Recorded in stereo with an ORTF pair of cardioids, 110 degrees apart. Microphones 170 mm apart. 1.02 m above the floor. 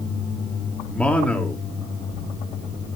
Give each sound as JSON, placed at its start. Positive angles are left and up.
{"t": 0.9, "sound": "a man speaking", "azimuth_deg": 10, "distance_m": 2.5}